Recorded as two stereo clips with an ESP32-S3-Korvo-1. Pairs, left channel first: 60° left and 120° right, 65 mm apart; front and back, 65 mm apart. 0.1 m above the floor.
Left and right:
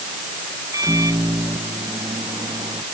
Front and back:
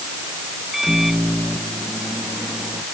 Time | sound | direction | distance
0.7 | a microwave | 90° right | ?